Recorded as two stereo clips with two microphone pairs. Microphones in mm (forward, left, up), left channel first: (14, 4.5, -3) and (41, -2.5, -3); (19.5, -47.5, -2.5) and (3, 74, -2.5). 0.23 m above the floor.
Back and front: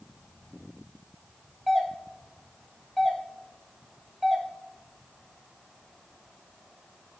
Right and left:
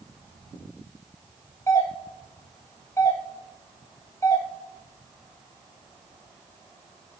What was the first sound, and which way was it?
A doorbell, 100° right.